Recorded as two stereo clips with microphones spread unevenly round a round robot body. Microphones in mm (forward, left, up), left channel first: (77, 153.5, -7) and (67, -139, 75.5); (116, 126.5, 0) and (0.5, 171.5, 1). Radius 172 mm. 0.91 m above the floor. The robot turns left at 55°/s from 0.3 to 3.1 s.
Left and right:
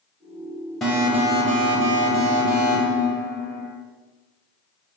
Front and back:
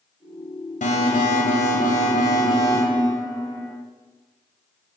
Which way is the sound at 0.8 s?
Straight ahead.